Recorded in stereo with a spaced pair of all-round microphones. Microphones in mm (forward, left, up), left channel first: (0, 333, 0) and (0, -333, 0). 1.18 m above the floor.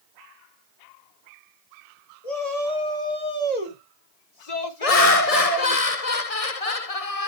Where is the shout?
70° left (ahead or behind), 4.5 m; by 5.8 s 55° left (ahead or behind), 1.8 m.